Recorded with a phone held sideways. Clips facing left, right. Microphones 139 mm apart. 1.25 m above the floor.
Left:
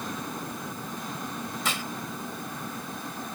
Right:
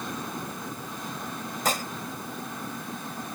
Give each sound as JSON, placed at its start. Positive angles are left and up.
{"t": 1.6, "sound": "dishes clattering", "side_deg": -45}